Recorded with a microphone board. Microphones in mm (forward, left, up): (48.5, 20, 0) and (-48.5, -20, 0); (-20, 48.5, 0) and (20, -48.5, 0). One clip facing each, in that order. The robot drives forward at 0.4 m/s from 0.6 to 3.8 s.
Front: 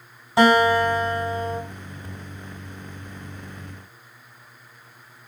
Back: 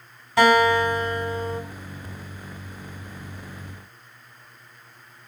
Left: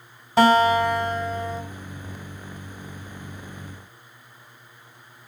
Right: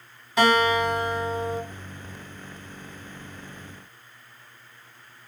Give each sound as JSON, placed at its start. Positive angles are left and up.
{"t": 0.4, "sound": "a guitar", "azimuth_deg": 75, "distance_m": 1.7}